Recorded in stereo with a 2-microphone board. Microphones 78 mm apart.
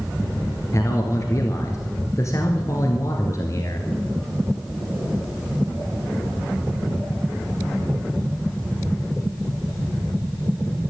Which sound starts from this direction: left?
A man speaking, at 0.7 s.